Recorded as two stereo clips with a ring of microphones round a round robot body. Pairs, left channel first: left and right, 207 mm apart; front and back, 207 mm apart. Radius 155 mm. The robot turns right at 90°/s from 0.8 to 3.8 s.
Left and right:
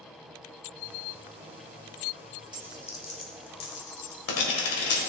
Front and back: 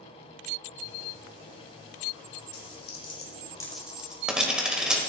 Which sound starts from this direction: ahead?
A dropped coin, at 2.5 s.